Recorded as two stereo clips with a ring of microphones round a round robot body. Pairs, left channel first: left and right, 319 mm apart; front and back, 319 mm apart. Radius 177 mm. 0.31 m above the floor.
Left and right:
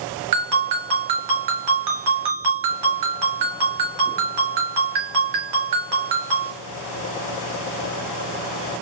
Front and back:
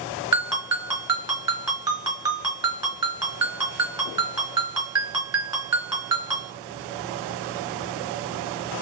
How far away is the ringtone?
About 2.5 m.